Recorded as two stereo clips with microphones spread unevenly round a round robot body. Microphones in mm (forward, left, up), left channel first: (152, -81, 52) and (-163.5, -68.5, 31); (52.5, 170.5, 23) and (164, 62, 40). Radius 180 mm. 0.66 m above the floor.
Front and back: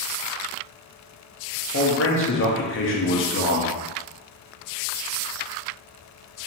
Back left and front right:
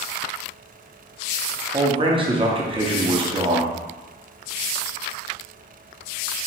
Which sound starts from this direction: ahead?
A man speaking, at 1.7 s.